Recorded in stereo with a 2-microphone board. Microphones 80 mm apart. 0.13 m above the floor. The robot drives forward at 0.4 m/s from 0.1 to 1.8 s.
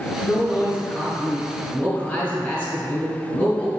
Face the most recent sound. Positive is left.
turn(degrees=25)  # may be behind; listen again after turning